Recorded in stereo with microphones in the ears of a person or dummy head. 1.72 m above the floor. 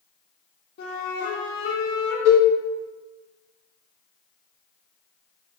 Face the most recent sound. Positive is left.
turn(degrees=10)  # may be behind; listen again after turning